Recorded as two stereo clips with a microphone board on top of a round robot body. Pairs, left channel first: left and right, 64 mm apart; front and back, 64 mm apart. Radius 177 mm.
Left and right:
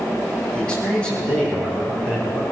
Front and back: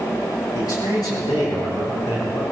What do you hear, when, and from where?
0.5 s a man speaking: 15° left, 5.5 m